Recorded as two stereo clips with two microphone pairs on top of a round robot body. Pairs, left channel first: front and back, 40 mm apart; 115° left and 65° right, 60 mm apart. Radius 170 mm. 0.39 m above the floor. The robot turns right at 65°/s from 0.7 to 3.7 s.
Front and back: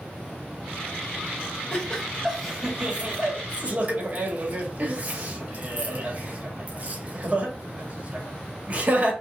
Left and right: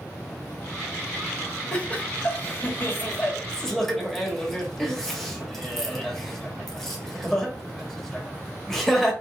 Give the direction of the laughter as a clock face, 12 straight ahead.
10 o'clock.